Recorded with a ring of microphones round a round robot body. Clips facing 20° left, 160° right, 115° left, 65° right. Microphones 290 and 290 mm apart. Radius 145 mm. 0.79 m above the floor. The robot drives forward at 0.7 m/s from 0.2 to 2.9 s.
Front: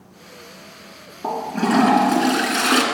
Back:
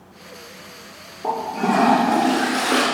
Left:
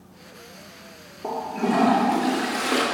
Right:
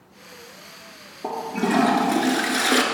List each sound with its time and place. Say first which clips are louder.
1.2 s a toilet flushing: front 1 dB, right 1 dB; 5° right, 2 m; by 2.8 s 10° right, 1.3 m